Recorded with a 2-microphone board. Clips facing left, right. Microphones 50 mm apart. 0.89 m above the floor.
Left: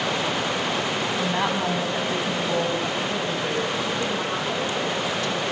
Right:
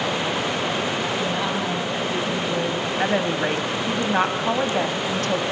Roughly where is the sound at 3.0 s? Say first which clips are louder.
Right 4 dB; right.